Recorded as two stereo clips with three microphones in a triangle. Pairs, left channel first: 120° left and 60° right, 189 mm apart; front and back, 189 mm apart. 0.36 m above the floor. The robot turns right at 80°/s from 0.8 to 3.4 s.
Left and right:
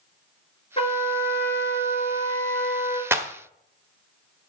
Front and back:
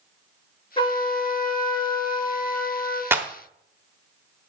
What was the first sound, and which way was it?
A trumpet, 60° left.